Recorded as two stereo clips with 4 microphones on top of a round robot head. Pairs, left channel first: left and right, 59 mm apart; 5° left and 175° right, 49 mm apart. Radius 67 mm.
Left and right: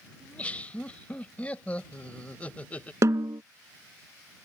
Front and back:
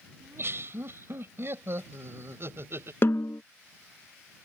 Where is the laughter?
155° left.